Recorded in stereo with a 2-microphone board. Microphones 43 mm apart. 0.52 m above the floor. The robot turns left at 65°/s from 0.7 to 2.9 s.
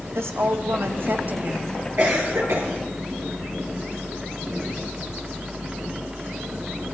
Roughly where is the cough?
Ahead right.